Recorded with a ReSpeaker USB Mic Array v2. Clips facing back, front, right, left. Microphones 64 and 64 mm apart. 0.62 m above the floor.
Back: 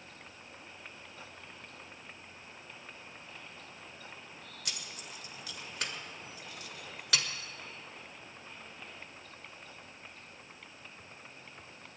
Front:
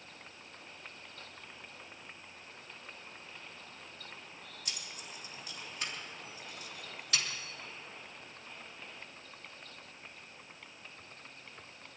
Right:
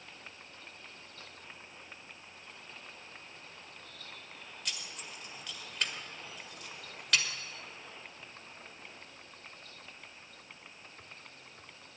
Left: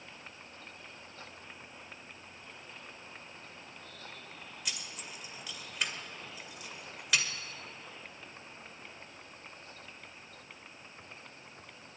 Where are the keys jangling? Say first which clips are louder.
Back 2 dB, even; 175° left, 1.3 m.